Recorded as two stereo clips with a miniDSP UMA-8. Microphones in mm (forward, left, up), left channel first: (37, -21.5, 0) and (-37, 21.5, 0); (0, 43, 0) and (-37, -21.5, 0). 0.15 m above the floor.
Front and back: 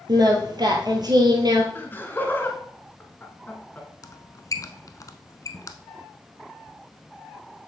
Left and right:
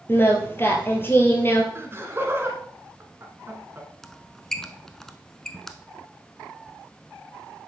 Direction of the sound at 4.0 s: 20° right.